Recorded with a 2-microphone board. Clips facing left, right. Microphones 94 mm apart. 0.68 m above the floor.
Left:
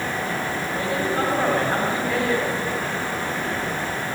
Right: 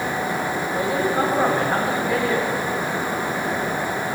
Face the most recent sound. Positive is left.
turn(degrees=-5)  # may be behind; listen again after turning